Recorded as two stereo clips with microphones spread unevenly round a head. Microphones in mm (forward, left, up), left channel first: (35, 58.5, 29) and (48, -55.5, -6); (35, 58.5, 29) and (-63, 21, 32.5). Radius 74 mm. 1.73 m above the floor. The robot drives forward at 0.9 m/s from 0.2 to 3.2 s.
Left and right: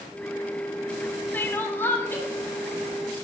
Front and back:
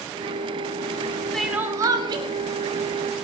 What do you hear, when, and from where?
1.3 s crying: 100° left, 0.6 m; by 2.2 s 165° left, 1.0 m